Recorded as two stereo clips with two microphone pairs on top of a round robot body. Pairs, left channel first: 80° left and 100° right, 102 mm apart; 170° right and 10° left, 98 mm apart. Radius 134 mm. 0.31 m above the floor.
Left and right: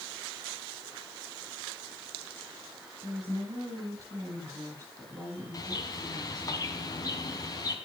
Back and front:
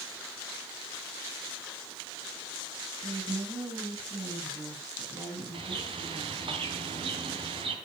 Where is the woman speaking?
50° right, 8 m.